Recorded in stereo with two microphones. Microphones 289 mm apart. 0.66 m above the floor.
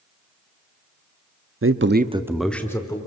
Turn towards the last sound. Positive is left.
turn(degrees=15)  # may be behind; listen again after turning